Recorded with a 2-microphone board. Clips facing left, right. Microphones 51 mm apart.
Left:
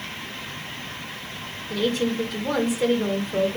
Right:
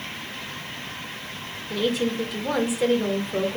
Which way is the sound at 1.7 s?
5° right (ahead or behind).